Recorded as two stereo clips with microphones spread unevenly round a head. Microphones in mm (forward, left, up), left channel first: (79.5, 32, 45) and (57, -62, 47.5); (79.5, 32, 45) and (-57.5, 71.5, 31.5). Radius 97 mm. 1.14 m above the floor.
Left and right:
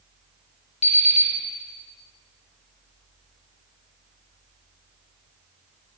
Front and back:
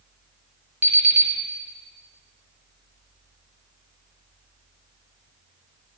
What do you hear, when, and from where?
0.8 s an alarm clock: 90° left, 1.2 m